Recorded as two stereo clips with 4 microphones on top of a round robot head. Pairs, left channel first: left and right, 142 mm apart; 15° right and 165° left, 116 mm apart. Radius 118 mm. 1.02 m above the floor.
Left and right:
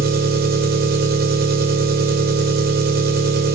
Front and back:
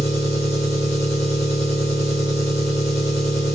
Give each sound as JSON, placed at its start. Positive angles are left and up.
{"t": 0.0, "sound": "an engine running", "azimuth_deg": -85, "distance_m": 2.5}